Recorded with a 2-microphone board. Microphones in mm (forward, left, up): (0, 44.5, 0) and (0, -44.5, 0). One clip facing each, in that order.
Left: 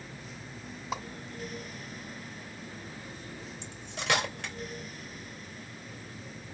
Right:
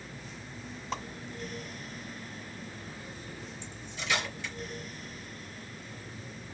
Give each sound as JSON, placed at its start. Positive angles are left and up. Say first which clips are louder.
{"t": 0.9, "sound": "a whoosh", "louder": "left 1 dB", "side_deg": 10, "distance_m": 1.4}
{"t": 3.6, "sound": "cutlery clinking", "louder": "left 6 dB", "side_deg": 85, "distance_m": 2.5}